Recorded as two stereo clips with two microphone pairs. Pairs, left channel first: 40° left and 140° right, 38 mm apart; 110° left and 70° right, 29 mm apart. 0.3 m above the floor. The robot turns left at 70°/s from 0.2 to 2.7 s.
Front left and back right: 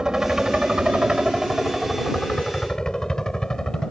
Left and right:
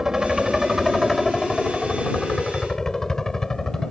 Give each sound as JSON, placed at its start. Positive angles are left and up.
{"t": 0.0, "sound": "a helicopter", "azimuth_deg": -110}